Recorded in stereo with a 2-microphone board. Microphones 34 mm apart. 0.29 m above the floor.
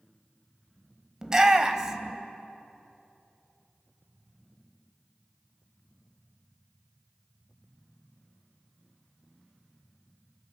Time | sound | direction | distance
1.2 | a shout | 20° right (ahead or behind) | 1.2 m